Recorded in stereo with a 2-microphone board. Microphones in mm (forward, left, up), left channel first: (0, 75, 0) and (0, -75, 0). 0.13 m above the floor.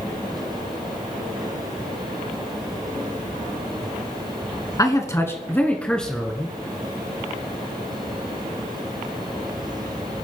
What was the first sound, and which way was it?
A man speaking, 25° left (ahead or behind).